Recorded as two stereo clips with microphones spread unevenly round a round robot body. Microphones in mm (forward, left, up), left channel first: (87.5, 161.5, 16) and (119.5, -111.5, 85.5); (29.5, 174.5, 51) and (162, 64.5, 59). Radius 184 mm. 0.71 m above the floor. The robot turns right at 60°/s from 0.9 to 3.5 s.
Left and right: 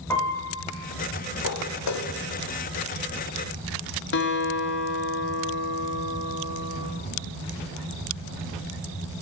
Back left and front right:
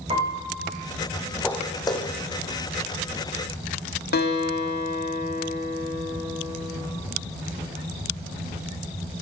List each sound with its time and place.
0.1 s a piano: 15° left, 3.5 m
1.4 s footsteps: 55° left, 1.4 m; by 4.8 s 140° left, 3 m
4.1 s a guitar: 135° left, 1.4 m